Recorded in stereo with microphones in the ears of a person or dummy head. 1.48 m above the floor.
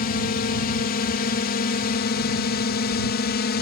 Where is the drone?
45° left (ahead or behind); by 3.6 s 50° left (ahead or behind).